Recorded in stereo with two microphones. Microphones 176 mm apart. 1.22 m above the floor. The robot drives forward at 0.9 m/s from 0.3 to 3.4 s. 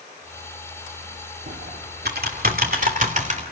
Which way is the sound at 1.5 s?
80° right.